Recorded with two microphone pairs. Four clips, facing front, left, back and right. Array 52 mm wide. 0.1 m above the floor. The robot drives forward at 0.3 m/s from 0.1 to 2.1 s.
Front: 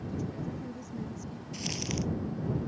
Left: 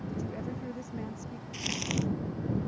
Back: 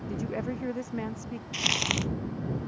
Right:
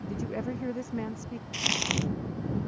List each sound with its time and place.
0.1 s a woman speaking: 150° right; by 1.4 s 155° right
1.5 s crumpling: 145° right; by 2.1 s 150° right